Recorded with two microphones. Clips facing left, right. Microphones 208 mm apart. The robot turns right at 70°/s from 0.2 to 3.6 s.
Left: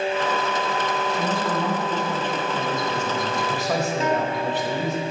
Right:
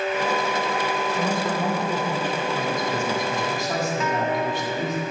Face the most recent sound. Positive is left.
turn(degrees=30)  # may be behind; listen again after turning